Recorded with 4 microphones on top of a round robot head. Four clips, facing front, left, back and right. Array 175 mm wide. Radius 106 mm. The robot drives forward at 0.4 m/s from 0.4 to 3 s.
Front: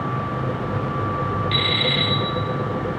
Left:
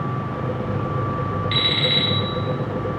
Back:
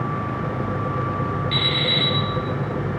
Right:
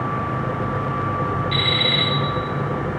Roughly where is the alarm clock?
Left.